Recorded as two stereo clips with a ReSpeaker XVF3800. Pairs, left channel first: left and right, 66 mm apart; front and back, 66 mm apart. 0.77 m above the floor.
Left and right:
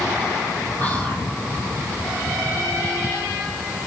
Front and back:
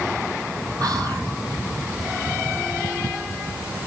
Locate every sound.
0.8 s whispering: 155° left, 5.5 m